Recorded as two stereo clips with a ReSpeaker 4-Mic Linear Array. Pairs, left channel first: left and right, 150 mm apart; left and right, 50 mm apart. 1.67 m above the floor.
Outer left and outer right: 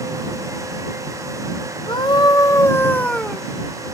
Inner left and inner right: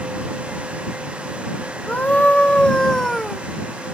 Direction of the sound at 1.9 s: 30° left (ahead or behind).